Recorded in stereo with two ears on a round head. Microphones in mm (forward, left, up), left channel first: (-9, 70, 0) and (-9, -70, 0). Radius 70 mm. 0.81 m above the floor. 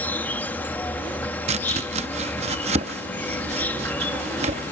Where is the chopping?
40° right (ahead or behind).